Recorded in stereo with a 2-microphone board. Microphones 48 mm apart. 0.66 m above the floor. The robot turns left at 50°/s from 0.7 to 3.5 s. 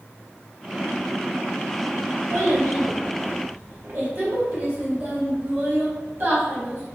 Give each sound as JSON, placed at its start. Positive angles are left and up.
{"t": 2.3, "sound": "a child speaking", "side_deg": -70, "distance_m": 1.0}